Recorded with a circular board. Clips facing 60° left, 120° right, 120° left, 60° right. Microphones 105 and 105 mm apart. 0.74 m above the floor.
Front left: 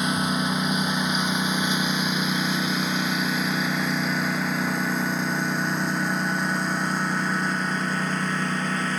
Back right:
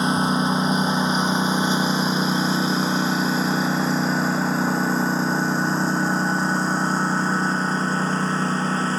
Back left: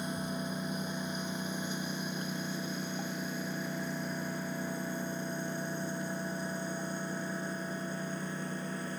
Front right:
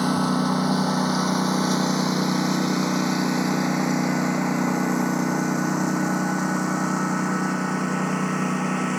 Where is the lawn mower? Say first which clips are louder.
Back right 4 dB, front right 15 dB; 60° right.